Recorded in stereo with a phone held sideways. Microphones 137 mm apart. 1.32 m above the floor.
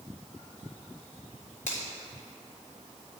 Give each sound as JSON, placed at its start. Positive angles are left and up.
{"t": 1.7, "sound": "a finger snap", "side_deg": 70, "distance_m": 3.0}